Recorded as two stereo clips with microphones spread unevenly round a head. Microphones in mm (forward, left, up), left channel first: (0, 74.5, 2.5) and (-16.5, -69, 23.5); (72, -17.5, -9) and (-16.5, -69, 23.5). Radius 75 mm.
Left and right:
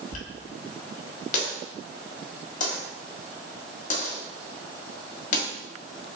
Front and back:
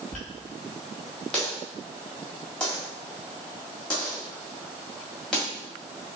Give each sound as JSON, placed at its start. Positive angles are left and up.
{"t": 0.1, "sound": "a dropped coin", "azimuth_deg": 125, "distance_m": 1.3}